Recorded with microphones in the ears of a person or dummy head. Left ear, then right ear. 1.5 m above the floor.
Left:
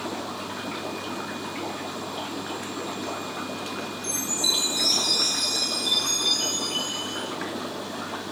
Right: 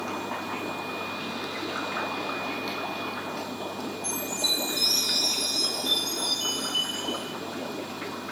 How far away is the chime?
About 10 m.